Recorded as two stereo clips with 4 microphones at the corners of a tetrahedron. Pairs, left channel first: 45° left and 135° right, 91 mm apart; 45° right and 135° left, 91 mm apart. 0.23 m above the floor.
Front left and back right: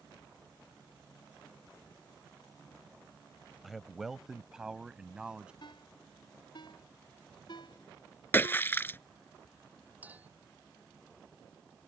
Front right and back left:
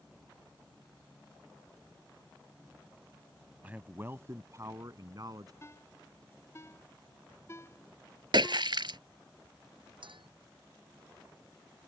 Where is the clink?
155° left.